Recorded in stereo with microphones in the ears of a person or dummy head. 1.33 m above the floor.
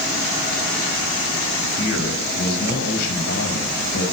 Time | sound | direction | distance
1.8 | a man speaking | 60° left (ahead or behind) | 6.5 m